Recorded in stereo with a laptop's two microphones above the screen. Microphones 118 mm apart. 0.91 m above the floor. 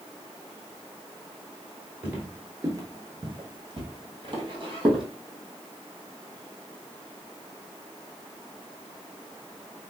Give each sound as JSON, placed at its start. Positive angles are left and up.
{"t": 2.0, "sound": "footsteps", "side_deg": -15, "distance_m": 1.0}